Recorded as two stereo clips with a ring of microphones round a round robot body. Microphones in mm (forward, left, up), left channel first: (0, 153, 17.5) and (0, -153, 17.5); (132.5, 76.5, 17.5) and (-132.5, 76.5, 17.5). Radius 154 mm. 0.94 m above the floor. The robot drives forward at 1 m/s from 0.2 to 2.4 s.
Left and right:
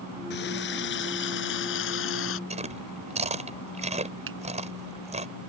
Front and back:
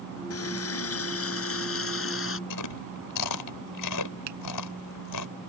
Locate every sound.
0.3 s a running tap: 30° left; by 2.4 s 40° left
2.5 s chewing: 20° right
4.3 s a finger snap: 140° right